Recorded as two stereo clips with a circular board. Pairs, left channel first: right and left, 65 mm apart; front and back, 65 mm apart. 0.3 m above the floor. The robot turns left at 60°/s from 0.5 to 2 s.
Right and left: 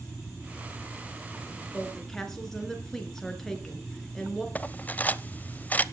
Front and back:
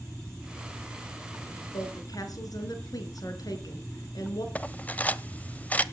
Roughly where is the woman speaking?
Ahead.